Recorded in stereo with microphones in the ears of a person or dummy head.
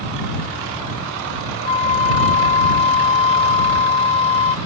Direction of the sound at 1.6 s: 35° left (ahead or behind).